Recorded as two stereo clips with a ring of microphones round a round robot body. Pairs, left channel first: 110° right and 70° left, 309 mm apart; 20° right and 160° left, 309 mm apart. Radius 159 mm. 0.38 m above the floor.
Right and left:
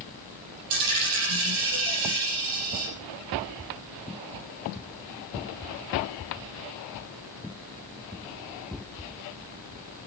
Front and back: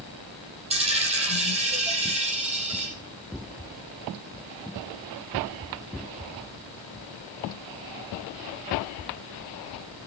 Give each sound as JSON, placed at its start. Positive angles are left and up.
{"t": 0.7, "sound": "a dropped coin", "azimuth_deg": 85, "distance_m": 6.0}